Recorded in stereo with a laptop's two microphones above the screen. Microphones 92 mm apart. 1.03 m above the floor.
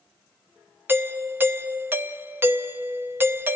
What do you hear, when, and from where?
0.9 s a doorbell: 25° right (ahead or behind), 0.6 m